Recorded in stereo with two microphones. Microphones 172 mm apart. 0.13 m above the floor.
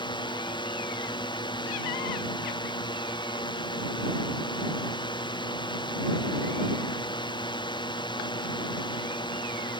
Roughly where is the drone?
Left.